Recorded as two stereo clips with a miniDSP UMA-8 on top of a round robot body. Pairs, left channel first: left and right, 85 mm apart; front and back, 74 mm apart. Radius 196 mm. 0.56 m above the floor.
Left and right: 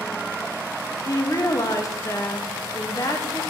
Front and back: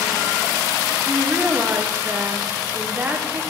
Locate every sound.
1.1 s a woman speaking: 120° left, 1.0 m